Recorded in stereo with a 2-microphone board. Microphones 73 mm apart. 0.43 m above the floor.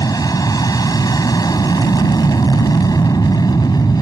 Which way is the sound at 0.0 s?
55° left (ahead or behind).